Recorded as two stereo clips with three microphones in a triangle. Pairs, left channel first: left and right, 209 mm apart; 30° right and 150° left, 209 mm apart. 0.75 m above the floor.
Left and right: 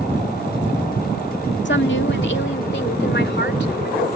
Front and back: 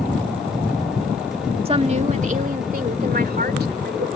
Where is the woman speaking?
90° left; by 4.1 s 120° left.